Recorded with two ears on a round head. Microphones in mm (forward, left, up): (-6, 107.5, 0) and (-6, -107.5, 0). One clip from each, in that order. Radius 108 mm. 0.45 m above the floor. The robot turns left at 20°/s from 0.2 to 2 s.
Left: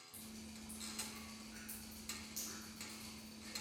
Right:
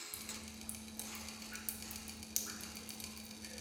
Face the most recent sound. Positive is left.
turn(degrees=-70)  # may be behind; listen again after turning